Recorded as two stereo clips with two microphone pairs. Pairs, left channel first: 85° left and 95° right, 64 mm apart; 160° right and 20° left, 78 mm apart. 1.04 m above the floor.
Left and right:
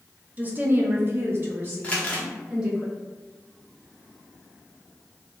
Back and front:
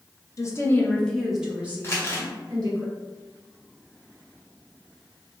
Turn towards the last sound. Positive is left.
turn(degrees=150)